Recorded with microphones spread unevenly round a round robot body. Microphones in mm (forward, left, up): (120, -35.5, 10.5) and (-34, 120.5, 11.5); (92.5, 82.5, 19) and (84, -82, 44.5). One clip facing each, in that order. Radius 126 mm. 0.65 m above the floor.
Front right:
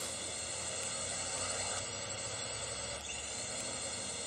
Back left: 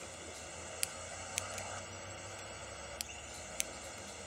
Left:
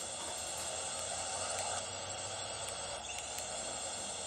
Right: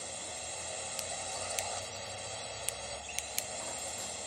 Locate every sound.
0.0 s a drone: 15° right